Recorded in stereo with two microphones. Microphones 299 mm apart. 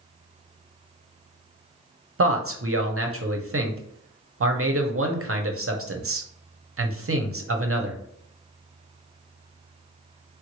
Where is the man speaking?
45° right (ahead or behind), 0.8 m.